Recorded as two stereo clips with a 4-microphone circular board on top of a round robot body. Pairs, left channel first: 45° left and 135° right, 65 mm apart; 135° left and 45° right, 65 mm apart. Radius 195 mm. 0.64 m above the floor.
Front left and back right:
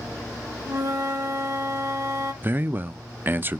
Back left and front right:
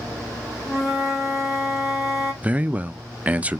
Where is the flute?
130° right, 1.7 m.